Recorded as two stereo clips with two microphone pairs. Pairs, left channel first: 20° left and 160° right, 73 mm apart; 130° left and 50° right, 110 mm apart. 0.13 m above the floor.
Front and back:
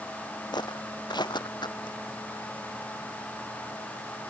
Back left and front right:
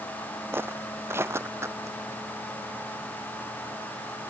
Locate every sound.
0.5 s footsteps: 20° left; by 2.0 s 15° left